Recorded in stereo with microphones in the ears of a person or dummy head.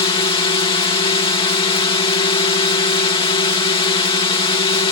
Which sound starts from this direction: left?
A drone, at 0.0 s.